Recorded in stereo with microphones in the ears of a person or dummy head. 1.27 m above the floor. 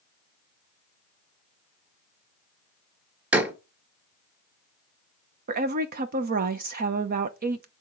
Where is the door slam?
5° right (ahead or behind), 1.2 m.